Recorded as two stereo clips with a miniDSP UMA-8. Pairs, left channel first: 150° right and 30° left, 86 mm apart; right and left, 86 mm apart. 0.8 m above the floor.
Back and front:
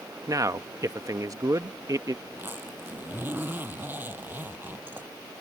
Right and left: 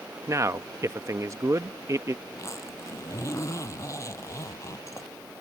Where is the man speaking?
55° left.